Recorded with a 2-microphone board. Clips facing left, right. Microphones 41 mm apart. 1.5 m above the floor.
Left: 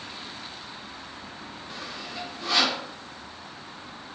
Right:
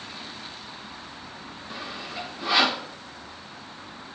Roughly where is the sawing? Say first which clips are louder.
Right 3 dB; centre.